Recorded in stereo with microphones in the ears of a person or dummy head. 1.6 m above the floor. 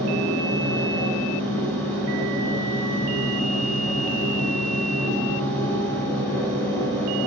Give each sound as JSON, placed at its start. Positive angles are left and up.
{"t": 0.0, "sound": "a machine running", "side_deg": 5, "distance_m": 0.8}